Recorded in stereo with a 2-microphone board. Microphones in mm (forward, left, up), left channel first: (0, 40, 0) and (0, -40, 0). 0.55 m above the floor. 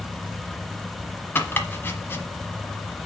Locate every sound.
1.4 s chopping: 25° left (ahead or behind), 1.1 m